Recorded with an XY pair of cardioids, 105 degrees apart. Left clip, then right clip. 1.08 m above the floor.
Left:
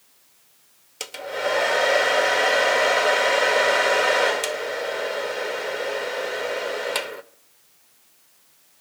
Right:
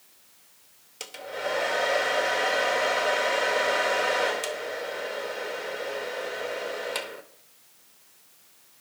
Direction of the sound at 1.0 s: 40° left.